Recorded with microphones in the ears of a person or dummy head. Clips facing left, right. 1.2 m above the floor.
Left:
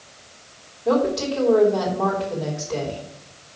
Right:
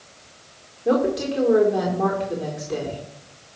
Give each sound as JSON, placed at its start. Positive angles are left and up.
{"t": 0.8, "sound": "a woman speaking", "side_deg": -25, "distance_m": 3.5}